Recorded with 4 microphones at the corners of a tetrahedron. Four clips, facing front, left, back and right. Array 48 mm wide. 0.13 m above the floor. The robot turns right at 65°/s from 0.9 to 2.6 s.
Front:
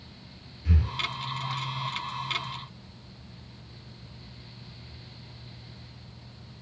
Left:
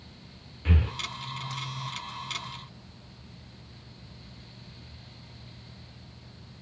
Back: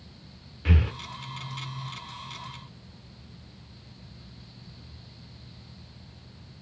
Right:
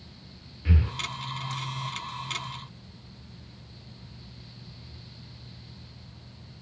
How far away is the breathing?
About 0.7 m.